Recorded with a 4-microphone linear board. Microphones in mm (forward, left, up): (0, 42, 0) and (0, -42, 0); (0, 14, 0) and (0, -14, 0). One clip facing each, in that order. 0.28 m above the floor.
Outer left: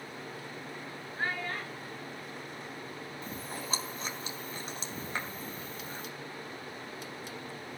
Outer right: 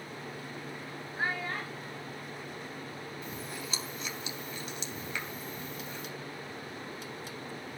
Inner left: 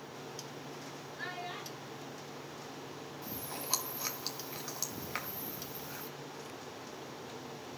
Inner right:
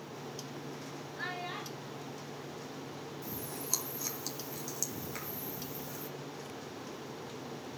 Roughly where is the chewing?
Left.